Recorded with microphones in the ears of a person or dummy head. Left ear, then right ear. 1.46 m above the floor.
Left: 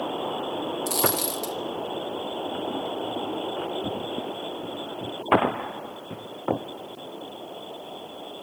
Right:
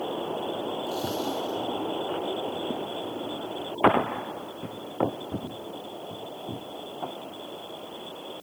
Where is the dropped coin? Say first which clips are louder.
Left 7 dB; 45° left (ahead or behind), 1.0 m.